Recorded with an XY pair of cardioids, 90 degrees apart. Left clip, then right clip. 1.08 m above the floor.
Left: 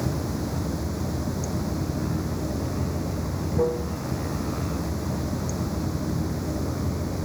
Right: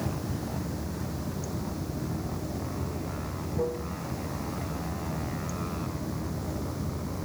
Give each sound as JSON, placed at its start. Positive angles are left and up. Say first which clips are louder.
{"t": 0.0, "sound": "running water", "louder": "left 5 dB", "azimuth_deg": 50}